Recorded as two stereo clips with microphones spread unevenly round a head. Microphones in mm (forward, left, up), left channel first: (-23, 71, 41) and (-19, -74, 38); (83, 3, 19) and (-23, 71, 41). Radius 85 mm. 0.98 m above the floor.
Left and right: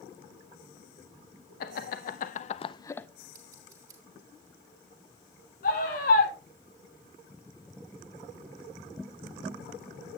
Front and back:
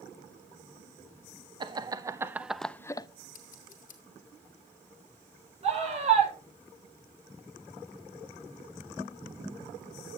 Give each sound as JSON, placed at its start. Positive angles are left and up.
{"t": 1.6, "sound": "laughter", "azimuth_deg": 90, "distance_m": 0.8}
{"t": 3.3, "sound": "scissors", "azimuth_deg": -20, "distance_m": 2.5}
{"t": 5.6, "sound": "a scream", "azimuth_deg": 115, "distance_m": 5.5}